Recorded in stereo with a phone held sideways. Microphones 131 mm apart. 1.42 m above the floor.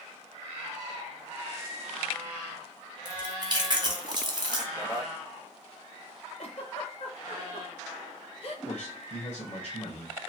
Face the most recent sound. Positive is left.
turn(degrees=55)  # may be behind; listen again after turning